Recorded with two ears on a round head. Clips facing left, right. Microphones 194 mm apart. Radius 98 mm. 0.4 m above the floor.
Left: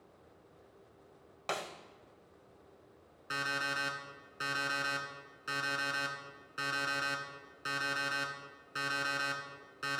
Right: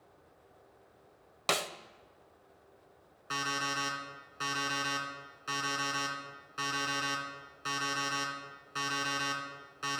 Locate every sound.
1.5 s a snare drum: 50° right (ahead or behind), 0.6 m
3.3 s an alarm clock: 15° left (ahead or behind), 2 m